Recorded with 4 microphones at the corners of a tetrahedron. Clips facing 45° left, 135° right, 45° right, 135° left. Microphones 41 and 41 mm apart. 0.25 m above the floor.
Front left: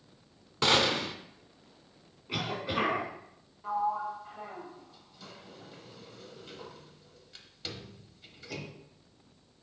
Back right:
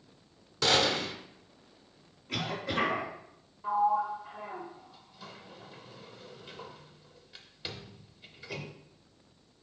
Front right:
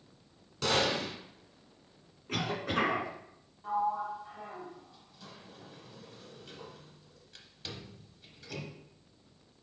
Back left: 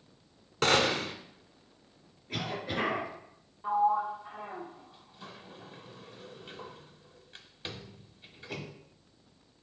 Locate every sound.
0.6 s a gunshot: 105° left, 1.1 m
2.3 s a cough: 30° right, 3 m
3.6 s a sliding door: 150° left, 0.9 m